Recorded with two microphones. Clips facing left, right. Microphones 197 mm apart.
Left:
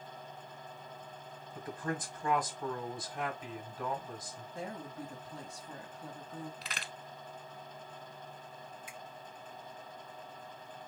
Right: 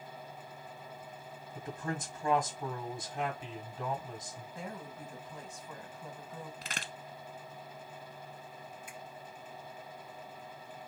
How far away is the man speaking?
About 1.7 m.